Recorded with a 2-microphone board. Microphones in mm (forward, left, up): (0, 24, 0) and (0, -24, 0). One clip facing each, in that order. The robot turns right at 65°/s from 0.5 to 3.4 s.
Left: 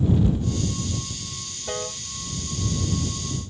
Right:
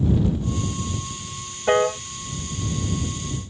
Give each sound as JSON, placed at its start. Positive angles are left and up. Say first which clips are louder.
{"t": 1.7, "sound": "a piano", "louder": "right 13 dB", "side_deg": -60}